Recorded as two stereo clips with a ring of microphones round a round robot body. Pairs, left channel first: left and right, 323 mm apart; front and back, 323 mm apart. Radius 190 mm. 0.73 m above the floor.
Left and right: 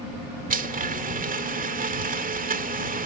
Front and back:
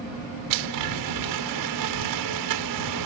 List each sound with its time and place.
0.5 s a blender: 155° right